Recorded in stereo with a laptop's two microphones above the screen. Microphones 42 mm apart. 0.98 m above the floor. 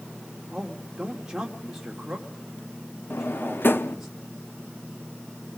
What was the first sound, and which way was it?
A man speaking, 15° right (ahead or behind).